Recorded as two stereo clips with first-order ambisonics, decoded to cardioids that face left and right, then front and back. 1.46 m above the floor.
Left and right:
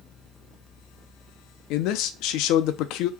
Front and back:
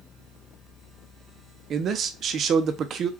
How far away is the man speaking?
About 0.6 m.